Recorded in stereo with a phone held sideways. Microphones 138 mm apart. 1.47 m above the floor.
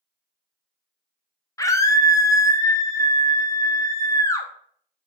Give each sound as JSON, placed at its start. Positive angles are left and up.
{"t": 1.6, "sound": "a scream", "side_deg": 25, "distance_m": 0.6}